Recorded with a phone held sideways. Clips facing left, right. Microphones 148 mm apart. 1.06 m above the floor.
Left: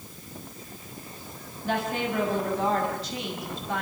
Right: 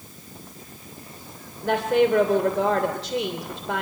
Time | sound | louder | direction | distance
1.6 | a woman speaking | right 9 dB | 85° right | 3 m